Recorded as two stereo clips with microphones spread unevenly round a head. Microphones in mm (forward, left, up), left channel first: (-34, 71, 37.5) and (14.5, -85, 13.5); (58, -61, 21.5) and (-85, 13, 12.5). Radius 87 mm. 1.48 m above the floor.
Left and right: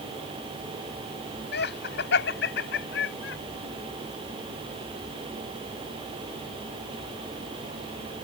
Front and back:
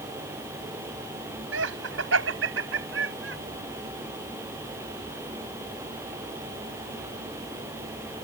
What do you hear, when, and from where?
1.5 s laughter: 130° left; by 3.4 s 125° left